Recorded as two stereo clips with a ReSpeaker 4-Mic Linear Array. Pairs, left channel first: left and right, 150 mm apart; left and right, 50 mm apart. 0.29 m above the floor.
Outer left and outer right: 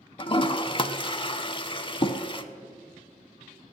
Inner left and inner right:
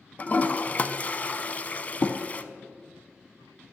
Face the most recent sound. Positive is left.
turn(degrees=35)  # may be behind; listen again after turning